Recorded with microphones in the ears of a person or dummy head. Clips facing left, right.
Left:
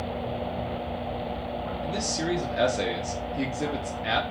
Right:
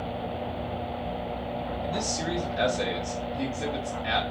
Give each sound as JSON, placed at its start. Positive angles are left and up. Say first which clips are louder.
{"t": 1.8, "sound": "a man speaking", "louder": "left 3 dB", "side_deg": 70, "distance_m": 1.3}